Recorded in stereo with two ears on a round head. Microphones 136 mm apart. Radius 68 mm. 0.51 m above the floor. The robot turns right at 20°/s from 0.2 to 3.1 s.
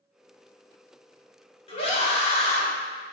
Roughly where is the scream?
Left.